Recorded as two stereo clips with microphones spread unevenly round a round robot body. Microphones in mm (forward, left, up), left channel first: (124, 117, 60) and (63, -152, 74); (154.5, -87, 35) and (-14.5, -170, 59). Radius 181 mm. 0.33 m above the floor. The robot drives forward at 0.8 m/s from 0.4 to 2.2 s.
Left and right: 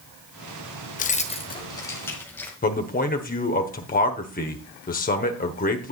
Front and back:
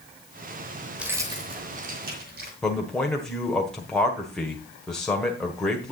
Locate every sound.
1.0 s keys jangling: 115° left, 0.8 m; by 2.5 s 160° left, 1.4 m
2.6 s a man speaking: 100° left, 1.3 m